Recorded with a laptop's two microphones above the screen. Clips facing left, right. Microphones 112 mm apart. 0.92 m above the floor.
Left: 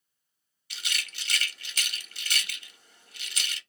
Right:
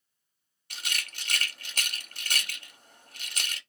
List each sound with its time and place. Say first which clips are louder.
0.7 s a rattle: even; 45° right (ahead or behind), 0.7 m